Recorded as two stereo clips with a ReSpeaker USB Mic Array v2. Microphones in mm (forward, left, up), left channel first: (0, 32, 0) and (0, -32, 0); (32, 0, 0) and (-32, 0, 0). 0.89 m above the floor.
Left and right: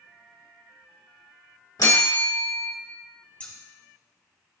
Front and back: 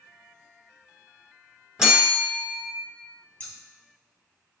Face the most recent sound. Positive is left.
turn(degrees=40)